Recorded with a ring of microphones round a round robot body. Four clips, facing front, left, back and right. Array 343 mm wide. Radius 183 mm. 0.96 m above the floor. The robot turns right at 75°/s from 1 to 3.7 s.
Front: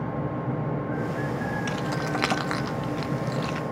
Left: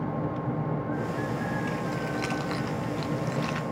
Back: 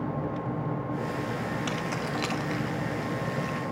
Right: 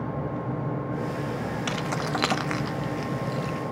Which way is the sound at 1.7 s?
95° right.